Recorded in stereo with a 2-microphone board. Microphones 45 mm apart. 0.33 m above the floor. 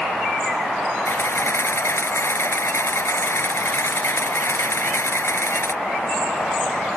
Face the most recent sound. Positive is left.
turn(degrees=70)  # may be behind; listen again after turning